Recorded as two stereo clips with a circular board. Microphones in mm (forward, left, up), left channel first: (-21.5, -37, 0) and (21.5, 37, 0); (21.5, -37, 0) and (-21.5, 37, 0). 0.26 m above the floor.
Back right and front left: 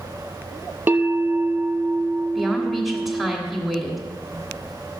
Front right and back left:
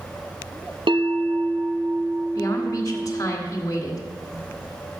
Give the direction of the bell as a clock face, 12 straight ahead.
8 o'clock.